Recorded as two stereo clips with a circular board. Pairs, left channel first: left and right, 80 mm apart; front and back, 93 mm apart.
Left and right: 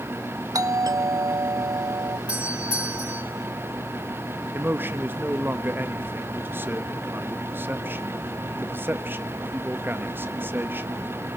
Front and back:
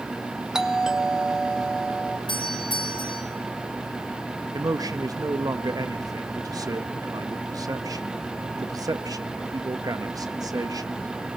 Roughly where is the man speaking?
Behind right.